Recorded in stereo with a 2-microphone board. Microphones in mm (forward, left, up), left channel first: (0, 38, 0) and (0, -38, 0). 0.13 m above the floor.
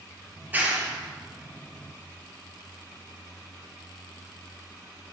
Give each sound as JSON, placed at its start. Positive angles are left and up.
{"t": 0.4, "sound": "a clap", "side_deg": -25, "distance_m": 2.5}